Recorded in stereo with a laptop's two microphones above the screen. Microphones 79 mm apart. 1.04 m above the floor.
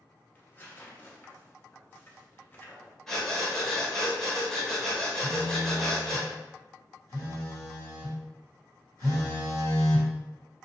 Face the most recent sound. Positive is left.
turn(degrees=-60)  # may be behind; listen again after turning